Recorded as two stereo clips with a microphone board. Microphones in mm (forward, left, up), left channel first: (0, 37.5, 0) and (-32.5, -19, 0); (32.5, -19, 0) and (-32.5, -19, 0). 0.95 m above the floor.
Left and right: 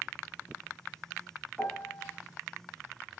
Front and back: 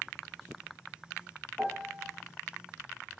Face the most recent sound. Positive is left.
turn(degrees=100)